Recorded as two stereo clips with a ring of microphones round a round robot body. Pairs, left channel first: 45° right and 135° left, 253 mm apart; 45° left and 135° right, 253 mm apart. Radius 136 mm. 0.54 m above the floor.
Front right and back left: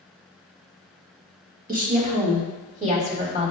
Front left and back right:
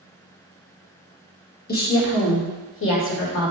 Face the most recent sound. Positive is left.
turn(degrees=75)